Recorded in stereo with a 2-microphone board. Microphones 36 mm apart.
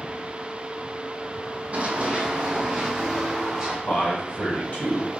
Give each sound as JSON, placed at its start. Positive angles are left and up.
{"t": 1.7, "sound": "running footsteps", "side_deg": -45, "distance_m": 0.9}
{"t": 3.9, "sound": "a man speaking", "side_deg": 55, "distance_m": 2.0}